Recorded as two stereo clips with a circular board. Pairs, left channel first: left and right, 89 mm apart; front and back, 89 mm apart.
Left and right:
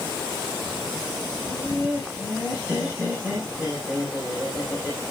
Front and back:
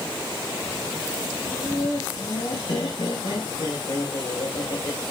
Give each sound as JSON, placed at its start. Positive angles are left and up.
{"t": 1.4, "sound": "laughter", "azimuth_deg": -15, "distance_m": 5.5}